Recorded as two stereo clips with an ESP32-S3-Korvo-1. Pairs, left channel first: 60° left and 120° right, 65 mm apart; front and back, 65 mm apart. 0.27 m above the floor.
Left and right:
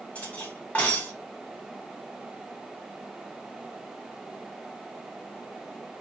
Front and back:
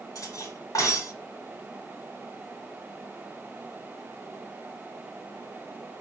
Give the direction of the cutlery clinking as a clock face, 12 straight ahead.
12 o'clock.